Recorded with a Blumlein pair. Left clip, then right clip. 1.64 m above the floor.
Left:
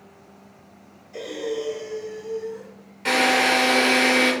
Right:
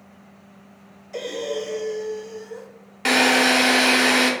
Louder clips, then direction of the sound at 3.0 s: Right 2 dB; 35° right.